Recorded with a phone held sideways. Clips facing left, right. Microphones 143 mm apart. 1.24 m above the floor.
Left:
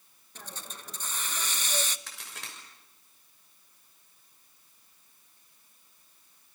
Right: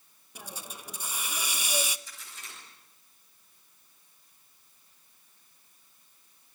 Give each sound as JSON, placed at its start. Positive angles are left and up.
{"t": 0.3, "sound": "a hiss", "side_deg": -10, "distance_m": 0.8}
{"t": 2.1, "sound": "a crack", "side_deg": 85, "distance_m": 6.5}